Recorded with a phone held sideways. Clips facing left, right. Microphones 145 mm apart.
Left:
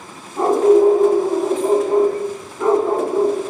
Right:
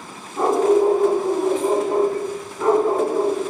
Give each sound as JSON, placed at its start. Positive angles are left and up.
{"t": 0.3, "sound": "a dog barking", "side_deg": 0, "distance_m": 1.9}